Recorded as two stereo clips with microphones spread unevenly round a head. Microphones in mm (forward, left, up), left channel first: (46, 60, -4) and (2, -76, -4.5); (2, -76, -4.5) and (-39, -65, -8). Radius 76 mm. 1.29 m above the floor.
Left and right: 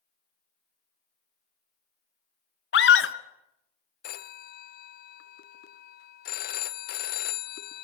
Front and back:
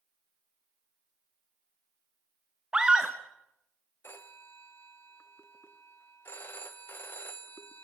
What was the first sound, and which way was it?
A scream, 80° left.